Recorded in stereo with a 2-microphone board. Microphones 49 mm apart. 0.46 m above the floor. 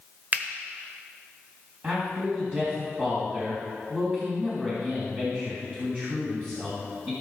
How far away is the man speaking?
About 3 m.